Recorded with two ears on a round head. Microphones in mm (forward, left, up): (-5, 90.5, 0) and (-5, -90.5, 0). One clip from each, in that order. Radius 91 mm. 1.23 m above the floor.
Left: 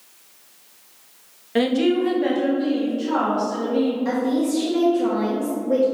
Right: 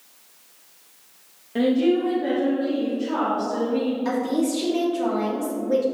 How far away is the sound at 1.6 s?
About 0.9 m.